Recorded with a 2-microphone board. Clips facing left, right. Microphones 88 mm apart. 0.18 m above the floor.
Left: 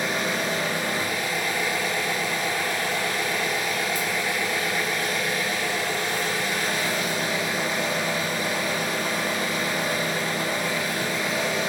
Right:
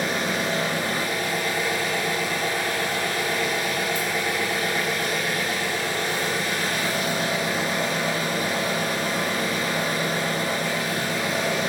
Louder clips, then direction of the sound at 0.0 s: Right 1 dB; 55° right (ahead or behind).